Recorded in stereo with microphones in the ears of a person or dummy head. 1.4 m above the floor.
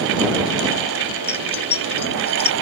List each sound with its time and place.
1.3 s keys jangling: 35° left (ahead or behind); by 2.5 s 30° left (ahead or behind)